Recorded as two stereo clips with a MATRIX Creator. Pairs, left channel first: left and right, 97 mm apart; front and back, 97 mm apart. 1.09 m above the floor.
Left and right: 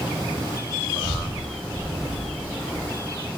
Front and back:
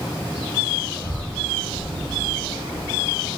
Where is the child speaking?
50° right, 2.5 m; by 3.3 s 35° left, 1.8 m.